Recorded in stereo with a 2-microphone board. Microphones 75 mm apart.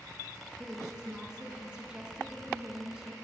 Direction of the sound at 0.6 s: 10° right (ahead or behind).